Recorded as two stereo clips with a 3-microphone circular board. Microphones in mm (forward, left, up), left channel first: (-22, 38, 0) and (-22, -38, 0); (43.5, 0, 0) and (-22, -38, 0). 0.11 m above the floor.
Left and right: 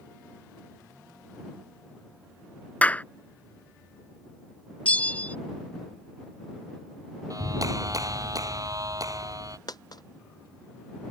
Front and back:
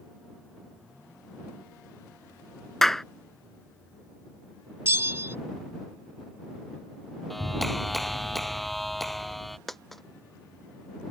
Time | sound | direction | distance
2.8 | a clap | 105° left | ?
4.8 | a bell | 160° left | ?
7.3 | a clap | 60° right | ?
9.7 | a dropped coin | 115° left | ?